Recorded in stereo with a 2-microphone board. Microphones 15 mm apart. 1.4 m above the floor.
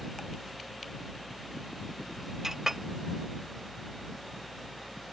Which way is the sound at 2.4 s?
25° right (ahead or behind).